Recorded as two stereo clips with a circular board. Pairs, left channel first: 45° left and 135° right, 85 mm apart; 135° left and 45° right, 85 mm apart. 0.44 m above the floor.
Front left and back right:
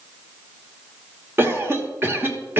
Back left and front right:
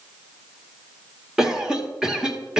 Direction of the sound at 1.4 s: 120° right.